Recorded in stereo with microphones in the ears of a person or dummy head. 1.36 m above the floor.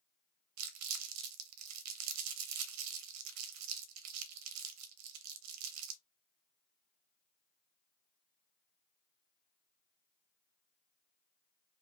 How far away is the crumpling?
About 0.6 m.